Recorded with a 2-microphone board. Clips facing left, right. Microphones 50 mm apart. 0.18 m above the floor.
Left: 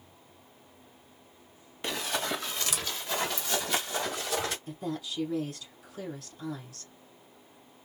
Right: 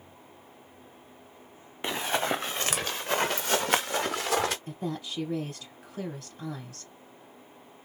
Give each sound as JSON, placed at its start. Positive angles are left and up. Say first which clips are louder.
{"t": 1.8, "sound": "running footsteps", "louder": "right 4 dB", "side_deg": -25, "distance_m": 1.1}
{"t": 4.7, "sound": "a woman speaking", "louder": "right 1 dB", "side_deg": -40, "distance_m": 2.5}